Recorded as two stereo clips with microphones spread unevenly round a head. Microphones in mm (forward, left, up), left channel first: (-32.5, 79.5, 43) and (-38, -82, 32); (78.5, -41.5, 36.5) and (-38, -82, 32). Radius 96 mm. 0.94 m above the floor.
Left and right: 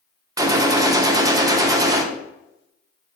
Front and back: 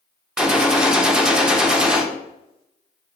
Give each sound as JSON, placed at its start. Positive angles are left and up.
{"t": 0.4, "sound": "a gunshot", "azimuth_deg": -90, "distance_m": 0.6}